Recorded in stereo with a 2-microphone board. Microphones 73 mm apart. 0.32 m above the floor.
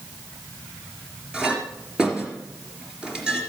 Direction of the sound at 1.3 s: 10° right (ahead or behind).